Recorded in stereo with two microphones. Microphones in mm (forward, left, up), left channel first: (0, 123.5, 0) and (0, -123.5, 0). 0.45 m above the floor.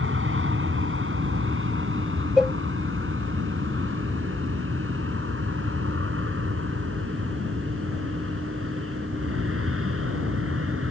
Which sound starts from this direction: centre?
A cowbell, at 2.4 s.